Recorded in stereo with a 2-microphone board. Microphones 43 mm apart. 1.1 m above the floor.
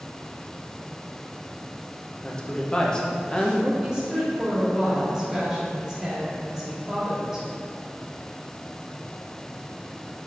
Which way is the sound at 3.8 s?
15° right (ahead or behind).